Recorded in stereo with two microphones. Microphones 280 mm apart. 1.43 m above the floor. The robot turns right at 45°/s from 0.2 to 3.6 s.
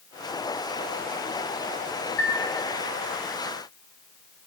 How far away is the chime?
About 4 m.